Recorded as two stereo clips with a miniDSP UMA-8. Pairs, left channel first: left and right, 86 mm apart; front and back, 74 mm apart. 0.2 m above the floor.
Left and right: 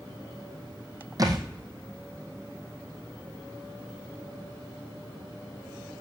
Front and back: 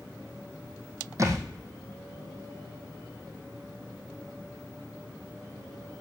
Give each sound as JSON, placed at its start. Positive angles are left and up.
{"t": 1.2, "sound": "a thud", "azimuth_deg": -135, "distance_m": 2.0}